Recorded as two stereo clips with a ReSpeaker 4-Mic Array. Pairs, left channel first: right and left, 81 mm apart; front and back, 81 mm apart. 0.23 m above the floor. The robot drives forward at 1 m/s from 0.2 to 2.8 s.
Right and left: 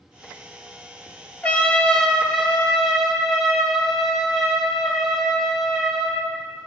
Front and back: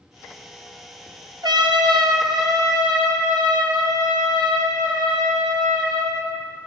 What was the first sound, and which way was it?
A trumpet, 160° right.